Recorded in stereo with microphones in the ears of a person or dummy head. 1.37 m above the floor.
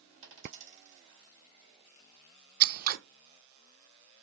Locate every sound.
0.2 s a dropped coin: 55° right (ahead or behind), 2 m
2.6 s scissors: 50° right (ahead or behind), 0.5 m